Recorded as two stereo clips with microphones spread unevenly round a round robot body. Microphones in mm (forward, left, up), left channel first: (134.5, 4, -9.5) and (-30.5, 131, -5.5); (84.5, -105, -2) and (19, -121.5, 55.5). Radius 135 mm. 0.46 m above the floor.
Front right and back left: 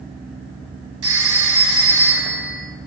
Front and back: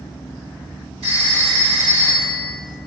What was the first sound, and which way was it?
A phone ringing, 145° left.